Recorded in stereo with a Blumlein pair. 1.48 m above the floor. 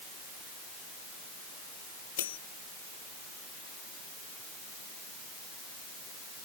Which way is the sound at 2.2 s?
60° left.